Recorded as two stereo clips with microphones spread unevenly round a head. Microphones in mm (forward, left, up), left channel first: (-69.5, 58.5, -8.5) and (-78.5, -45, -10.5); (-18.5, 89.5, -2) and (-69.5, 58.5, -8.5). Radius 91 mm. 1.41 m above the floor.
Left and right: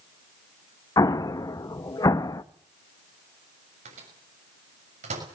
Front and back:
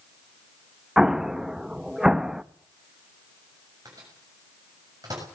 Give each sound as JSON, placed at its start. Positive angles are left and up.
{"t": 1.0, "sound": "an explosion", "azimuth_deg": 125, "distance_m": 0.9}
{"t": 3.9, "sound": "a microwave", "azimuth_deg": -80, "distance_m": 6.5}